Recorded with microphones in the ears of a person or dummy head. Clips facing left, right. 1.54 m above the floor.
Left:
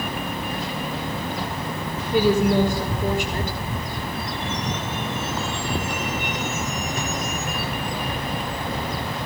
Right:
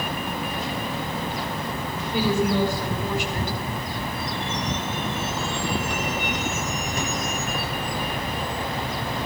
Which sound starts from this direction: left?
A woman speaking, at 2.1 s.